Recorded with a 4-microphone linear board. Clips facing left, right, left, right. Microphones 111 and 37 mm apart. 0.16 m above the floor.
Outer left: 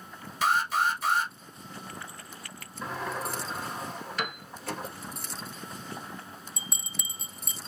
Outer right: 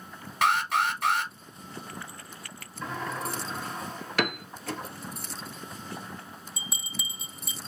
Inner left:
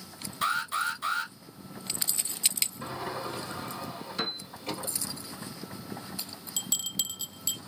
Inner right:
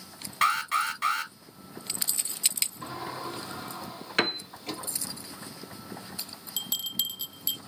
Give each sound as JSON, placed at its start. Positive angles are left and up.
{"t": 0.4, "sound": "an alarm", "side_deg": -65, "distance_m": 1.9}
{"t": 2.8, "sound": "a sliding door", "side_deg": 5, "distance_m": 2.5}
{"t": 4.2, "sound": "a piano", "side_deg": -70, "distance_m": 0.5}
{"t": 6.6, "sound": "a bell", "side_deg": -5, "distance_m": 0.5}